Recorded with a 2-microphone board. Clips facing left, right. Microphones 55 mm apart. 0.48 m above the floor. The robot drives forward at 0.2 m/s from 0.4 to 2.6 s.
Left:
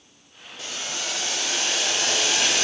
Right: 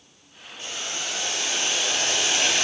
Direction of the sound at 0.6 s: 80° left.